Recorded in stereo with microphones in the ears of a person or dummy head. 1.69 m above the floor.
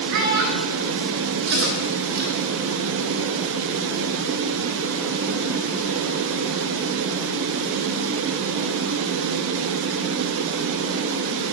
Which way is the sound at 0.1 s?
60° right (ahead or behind).